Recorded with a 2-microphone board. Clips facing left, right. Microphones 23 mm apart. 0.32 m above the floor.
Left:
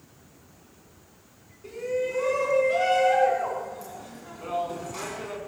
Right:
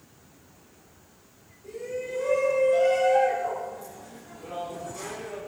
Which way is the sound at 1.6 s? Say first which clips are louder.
Left 5 dB; 70° left (ahead or behind).